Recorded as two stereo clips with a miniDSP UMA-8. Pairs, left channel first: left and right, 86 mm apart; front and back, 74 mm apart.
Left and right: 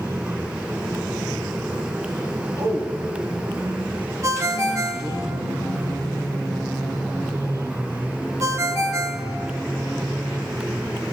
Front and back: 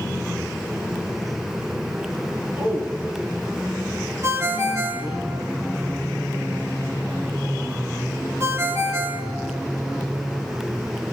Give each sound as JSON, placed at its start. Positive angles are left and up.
{"t": 2.6, "sound": "a man speaking", "azimuth_deg": -125, "distance_m": 2.0}
{"t": 4.2, "sound": "a ringtone", "azimuth_deg": -135, "distance_m": 1.1}